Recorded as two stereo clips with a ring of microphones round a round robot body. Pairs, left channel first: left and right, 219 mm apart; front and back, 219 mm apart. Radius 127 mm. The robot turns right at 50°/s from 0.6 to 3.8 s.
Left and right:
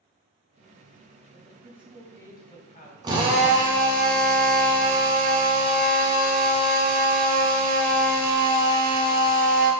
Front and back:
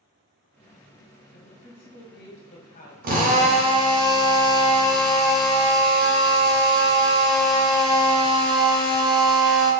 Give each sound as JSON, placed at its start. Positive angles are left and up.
{"t": 1.3, "sound": "a woman speaking", "azimuth_deg": -30, "distance_m": 1.6}
{"t": 3.0, "sound": "a drill", "azimuth_deg": -155, "distance_m": 0.9}